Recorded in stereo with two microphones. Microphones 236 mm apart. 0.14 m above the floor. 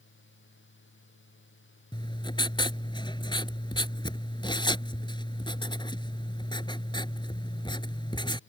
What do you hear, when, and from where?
1.9 s writing: 20° left (ahead or behind)